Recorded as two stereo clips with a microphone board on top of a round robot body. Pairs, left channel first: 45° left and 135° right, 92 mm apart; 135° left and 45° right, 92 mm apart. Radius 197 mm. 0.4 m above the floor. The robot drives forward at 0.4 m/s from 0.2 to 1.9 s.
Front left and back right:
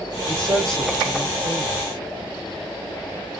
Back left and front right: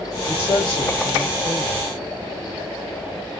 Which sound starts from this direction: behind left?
A man speaking, at 0.3 s.